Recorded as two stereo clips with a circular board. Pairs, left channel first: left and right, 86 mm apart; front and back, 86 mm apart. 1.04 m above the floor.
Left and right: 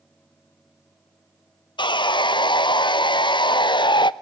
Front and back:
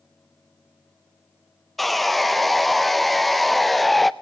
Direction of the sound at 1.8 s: 90° left.